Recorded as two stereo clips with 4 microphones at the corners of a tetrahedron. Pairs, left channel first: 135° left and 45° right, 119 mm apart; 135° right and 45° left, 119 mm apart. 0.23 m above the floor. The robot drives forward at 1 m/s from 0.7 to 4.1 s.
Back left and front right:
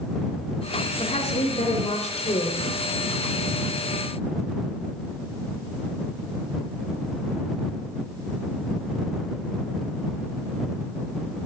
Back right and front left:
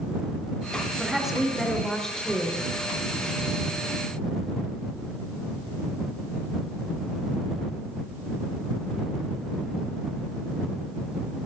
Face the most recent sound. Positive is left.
turn(degrees=150)